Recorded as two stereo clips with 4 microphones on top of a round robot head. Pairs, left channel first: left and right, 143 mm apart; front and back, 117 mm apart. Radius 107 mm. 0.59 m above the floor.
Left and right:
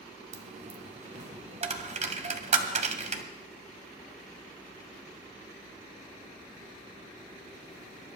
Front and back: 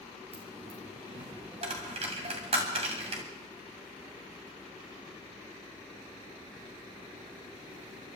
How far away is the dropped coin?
About 1.4 m.